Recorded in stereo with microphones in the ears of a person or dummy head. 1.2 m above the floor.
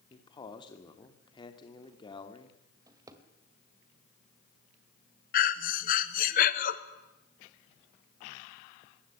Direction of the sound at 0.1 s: 25° left (ahead or behind).